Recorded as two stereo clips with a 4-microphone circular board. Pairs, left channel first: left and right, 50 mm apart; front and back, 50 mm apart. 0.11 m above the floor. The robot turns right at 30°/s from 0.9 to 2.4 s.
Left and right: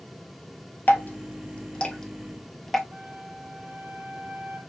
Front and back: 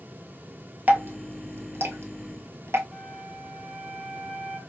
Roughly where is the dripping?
Behind left.